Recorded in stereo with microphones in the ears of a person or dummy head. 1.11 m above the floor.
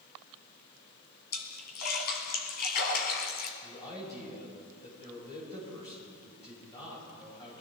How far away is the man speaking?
About 6.5 m.